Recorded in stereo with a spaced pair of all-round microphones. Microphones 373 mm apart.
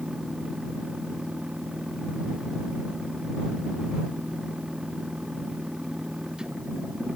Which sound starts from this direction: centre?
A machine running, at 0.0 s.